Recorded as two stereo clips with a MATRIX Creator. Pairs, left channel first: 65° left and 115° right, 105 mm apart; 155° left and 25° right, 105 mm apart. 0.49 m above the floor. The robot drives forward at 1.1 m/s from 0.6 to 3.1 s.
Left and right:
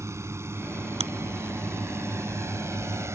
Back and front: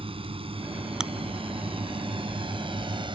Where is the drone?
50° right.